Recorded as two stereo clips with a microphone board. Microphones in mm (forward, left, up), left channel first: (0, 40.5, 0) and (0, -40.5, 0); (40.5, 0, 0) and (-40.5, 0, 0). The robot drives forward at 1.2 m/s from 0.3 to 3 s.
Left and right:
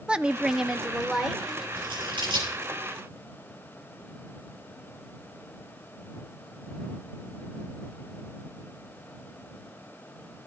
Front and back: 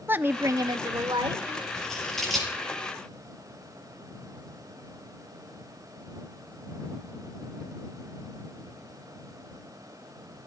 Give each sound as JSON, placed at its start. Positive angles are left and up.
{"t": 0.1, "sound": "a woman speaking", "azimuth_deg": -155, "distance_m": 0.6}
{"t": 1.8, "sound": "scissors", "azimuth_deg": -80, "distance_m": 7.0}